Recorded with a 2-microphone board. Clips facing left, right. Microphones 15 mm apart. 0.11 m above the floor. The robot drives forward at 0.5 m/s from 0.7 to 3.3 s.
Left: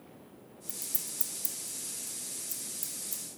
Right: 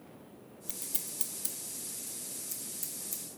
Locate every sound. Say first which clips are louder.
0.7 s scissors: left 1 dB; 45° right (ahead or behind), 0.6 m; by 3.2 s 15° right (ahead or behind), 1.7 m